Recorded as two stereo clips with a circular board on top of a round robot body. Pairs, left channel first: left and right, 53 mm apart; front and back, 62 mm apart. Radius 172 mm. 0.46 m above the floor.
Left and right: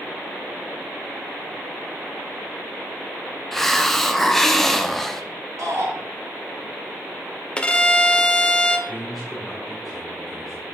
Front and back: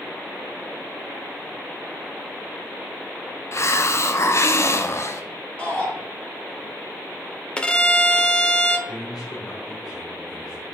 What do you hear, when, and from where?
3.5 s a hiss: 5° left, 1.0 m
5.6 s a shout: 75° right, 4 m
7.6 s a violin: 50° left, 1.1 m
8.9 s a man speaking: straight ahead, 2 m